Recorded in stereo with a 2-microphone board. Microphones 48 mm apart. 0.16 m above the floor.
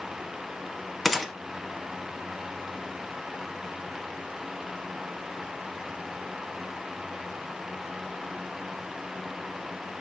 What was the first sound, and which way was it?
A gunshot, centre (ahead or behind).